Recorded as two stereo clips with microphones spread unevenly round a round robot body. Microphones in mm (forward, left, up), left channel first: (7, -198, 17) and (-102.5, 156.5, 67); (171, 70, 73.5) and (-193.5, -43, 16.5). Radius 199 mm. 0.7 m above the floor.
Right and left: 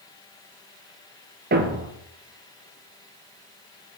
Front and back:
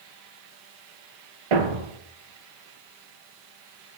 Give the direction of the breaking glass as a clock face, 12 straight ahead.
I don't hear breaking glass.